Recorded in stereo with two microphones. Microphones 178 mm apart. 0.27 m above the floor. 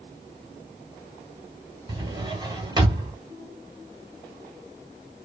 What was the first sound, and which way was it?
A drawer, 25° right (ahead or behind).